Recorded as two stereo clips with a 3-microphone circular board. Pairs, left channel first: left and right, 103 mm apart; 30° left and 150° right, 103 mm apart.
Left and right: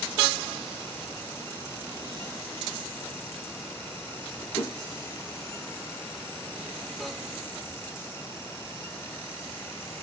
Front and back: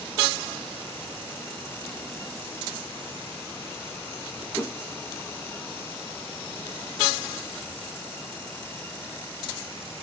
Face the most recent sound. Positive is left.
turn(degrees=100)